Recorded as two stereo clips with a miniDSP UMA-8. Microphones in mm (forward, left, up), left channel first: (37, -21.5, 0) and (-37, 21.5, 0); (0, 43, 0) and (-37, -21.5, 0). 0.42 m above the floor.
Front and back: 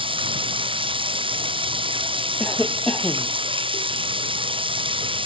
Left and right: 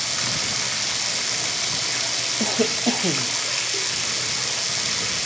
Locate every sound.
0.0 s running water: 150° left
2.4 s a cough: 110° right